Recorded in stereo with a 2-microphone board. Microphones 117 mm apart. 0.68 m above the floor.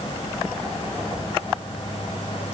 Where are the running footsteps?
No running footsteps in this recording.